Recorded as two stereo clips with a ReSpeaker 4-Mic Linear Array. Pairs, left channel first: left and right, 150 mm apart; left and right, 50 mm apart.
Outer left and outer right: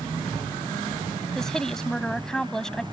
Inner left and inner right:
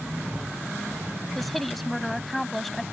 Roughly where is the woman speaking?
Centre.